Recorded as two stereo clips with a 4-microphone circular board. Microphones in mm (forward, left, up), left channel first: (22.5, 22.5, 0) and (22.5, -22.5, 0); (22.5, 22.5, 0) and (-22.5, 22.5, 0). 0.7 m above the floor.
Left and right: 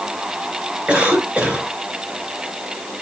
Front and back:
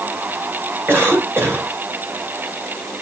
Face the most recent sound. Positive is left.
turn(degrees=-150)